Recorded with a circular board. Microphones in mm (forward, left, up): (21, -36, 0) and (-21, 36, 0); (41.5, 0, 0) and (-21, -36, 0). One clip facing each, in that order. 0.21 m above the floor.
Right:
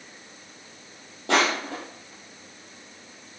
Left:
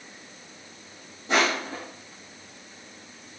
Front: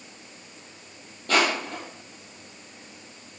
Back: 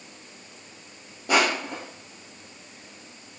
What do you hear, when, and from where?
1.3 s crushing: 75° right, 3 m